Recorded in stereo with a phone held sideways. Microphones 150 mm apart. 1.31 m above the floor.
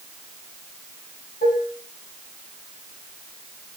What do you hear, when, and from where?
1.4 s dishes clattering: 75° left (ahead or behind), 7 m